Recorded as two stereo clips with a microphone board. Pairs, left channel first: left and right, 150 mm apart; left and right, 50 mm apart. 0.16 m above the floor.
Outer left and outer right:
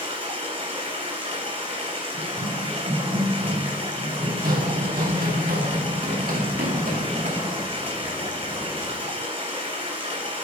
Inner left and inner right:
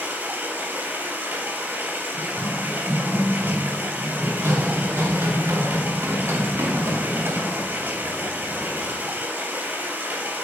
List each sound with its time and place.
0.0 s running water: 45° right (ahead or behind), 3 m
2.1 s running footsteps: 50° right (ahead or behind), 2.5 m; by 7.7 s 65° right (ahead or behind), 3.5 m